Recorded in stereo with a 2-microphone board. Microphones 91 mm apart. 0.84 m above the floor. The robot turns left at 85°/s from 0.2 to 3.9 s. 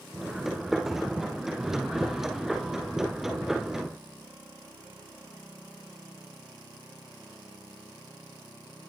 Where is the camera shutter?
No camera shutter in this recording.